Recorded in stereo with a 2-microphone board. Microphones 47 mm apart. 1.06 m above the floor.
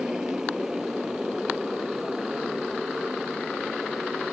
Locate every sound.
0.0 s a motorcycle: 15° right (ahead or behind); by 4.3 s 10° right (ahead or behind)